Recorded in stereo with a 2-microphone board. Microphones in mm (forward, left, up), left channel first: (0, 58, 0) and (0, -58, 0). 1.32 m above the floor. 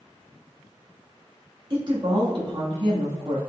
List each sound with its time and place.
1.7 s a woman speaking: 45° right (ahead or behind), 2.5 m